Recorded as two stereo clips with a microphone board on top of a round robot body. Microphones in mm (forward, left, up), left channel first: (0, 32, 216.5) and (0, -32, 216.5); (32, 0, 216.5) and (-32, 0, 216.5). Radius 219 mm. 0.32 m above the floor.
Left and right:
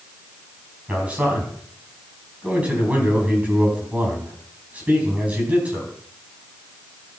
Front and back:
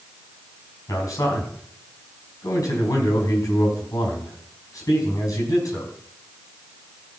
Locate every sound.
0.9 s a man speaking: 25° right, 5 m